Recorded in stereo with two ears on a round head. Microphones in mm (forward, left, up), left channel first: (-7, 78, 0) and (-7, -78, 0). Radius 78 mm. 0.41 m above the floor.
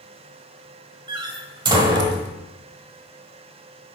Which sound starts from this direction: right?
A door slam, at 1.1 s.